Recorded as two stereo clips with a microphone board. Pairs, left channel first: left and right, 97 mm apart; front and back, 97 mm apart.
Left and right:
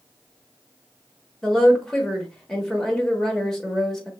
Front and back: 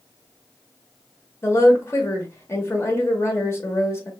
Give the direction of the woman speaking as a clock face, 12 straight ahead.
12 o'clock.